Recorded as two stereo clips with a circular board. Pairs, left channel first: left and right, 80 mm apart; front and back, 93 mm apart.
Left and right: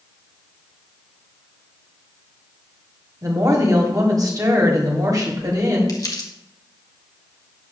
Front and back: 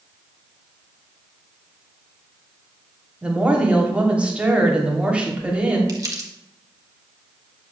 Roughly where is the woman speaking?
Right.